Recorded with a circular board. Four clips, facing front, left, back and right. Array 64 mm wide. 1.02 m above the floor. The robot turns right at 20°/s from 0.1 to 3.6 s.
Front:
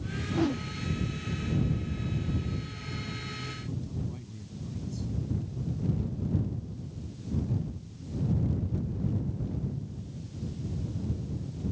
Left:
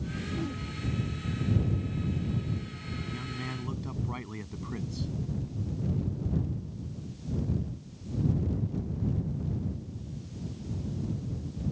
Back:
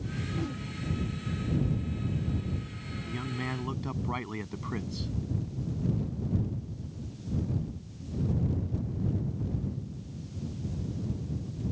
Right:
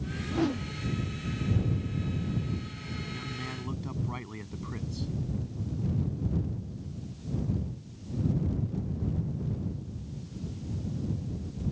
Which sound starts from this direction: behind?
A man speaking, at 3.0 s.